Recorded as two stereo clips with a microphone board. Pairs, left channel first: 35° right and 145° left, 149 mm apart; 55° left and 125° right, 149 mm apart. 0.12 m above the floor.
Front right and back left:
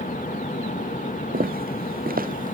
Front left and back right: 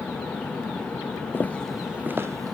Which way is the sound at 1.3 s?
130° left.